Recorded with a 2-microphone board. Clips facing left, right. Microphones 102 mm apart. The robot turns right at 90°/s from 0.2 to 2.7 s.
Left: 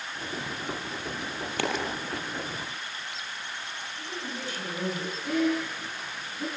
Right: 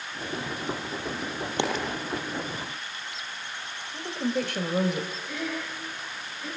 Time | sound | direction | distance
1.6 | a dropped coin | 25° right (ahead or behind) | 4.5 m
3.9 | a woman speaking | 70° right (ahead or behind) | 3.5 m
5.2 | breathing | 80° left | 8.5 m